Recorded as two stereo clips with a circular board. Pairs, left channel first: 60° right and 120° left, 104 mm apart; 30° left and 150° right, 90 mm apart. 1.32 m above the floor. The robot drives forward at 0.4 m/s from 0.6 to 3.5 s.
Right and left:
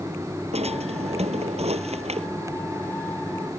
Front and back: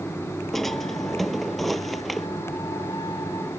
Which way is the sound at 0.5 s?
120° left.